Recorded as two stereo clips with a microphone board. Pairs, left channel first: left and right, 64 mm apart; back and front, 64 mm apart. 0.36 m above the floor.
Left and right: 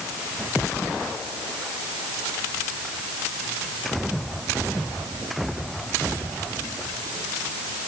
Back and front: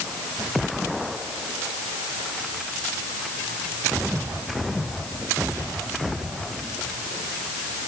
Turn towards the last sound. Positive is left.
No sound to turn to.